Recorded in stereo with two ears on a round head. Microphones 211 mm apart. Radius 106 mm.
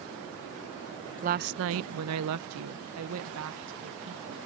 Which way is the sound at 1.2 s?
30° right (ahead or behind).